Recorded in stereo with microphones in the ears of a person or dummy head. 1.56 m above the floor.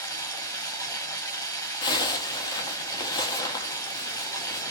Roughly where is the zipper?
Left.